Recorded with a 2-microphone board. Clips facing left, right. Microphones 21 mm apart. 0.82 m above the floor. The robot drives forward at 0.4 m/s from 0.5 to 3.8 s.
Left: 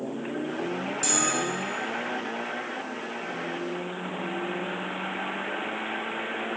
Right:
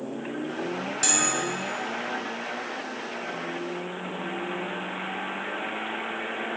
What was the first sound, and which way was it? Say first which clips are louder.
A bell: right 1 dB; 30° right (ahead or behind).